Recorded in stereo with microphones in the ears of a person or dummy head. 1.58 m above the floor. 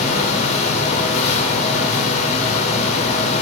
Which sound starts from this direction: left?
A fan, at 0.0 s.